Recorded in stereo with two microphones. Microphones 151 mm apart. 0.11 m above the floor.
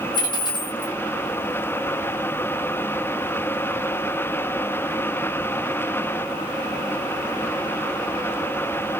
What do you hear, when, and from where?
0.1 s a dropped coin: 30° left (ahead or behind), 2 m